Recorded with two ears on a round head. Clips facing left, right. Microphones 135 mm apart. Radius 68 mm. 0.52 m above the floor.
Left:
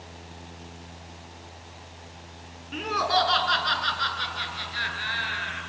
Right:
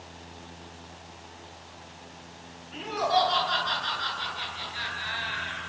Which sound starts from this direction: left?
Laughter, at 2.7 s.